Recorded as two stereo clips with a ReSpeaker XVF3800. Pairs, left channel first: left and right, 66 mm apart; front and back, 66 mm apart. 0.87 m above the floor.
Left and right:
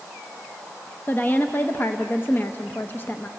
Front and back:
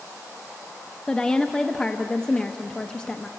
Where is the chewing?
No chewing in this recording.